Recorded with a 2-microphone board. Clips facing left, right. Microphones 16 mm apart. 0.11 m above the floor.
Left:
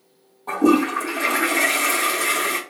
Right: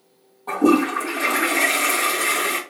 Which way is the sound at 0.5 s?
5° right (ahead or behind).